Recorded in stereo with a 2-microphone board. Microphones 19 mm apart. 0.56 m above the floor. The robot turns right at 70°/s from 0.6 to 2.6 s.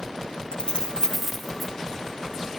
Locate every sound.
0.5 s keys jangling: 55° left (ahead or behind), 1.6 m; by 1.7 s 20° right (ahead or behind), 1.6 m